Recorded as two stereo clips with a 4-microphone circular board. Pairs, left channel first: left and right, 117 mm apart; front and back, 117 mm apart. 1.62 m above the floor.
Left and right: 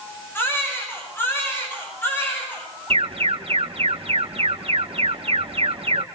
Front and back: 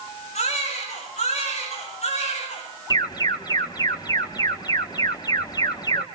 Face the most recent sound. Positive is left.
turn(degrees=-55)